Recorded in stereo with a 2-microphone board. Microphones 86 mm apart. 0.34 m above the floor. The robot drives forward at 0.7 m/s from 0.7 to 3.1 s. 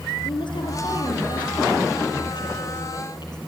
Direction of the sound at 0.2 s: 65° left (ahead or behind).